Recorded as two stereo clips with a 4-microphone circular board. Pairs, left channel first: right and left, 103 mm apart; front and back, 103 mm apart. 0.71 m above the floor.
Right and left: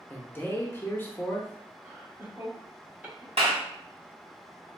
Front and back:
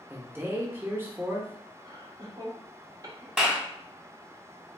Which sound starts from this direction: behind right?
A man speaking, at 0.1 s.